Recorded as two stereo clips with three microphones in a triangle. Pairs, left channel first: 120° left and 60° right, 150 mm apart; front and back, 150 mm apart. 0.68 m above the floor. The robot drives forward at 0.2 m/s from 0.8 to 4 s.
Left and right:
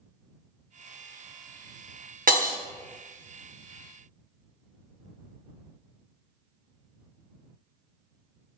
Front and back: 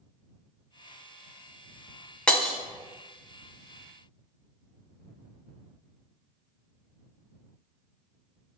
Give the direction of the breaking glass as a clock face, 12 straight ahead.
3 o'clock.